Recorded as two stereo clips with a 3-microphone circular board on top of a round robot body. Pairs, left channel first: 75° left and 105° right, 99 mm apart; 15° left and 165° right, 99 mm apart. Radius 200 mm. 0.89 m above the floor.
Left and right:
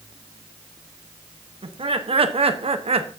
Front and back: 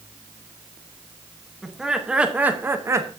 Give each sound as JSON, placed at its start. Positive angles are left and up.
{"t": 1.6, "sound": "laughter", "azimuth_deg": -75, "distance_m": 1.4}